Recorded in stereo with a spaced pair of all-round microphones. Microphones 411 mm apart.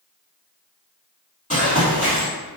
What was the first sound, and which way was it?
Running footsteps, 15° left (ahead or behind).